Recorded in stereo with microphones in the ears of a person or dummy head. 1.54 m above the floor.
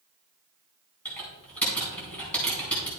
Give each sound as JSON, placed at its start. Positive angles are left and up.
{"t": 1.1, "sound": "typing on a keyboard", "side_deg": 10, "distance_m": 4.5}